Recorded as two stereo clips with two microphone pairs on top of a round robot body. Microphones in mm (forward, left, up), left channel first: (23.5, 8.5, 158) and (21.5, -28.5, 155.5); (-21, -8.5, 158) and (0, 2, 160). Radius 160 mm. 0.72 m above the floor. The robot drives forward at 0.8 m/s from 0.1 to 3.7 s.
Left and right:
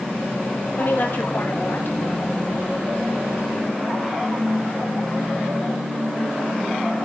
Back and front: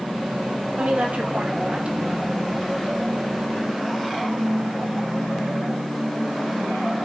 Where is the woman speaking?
50° left, 3 m; by 2.2 s 70° left, 2.5 m.